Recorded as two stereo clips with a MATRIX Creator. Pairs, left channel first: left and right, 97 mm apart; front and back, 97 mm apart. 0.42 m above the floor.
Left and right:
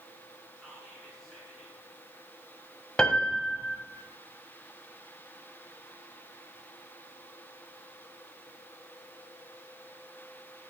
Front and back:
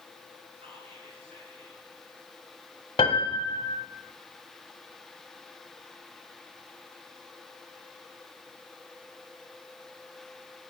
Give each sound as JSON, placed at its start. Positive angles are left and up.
{"t": 0.6, "sound": "whispering", "azimuth_deg": 180, "distance_m": 4.5}
{"t": 3.0, "sound": "a piano", "azimuth_deg": 10, "distance_m": 1.0}